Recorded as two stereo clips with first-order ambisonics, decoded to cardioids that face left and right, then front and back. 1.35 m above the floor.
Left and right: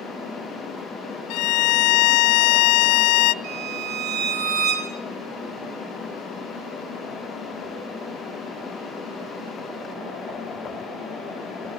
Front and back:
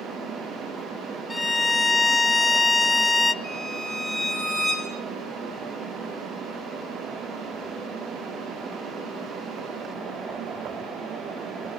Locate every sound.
1.3 s a violin: 80° left, 0.5 m
3.4 s a violin: 105° right, 5.5 m